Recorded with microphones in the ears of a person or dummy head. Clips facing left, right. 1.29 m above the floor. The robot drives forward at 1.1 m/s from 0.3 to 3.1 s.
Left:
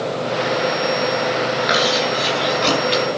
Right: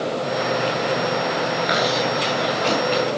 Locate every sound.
1.6 s chewing: 35° left (ahead or behind), 5 m; by 3.0 s 50° left (ahead or behind), 4 m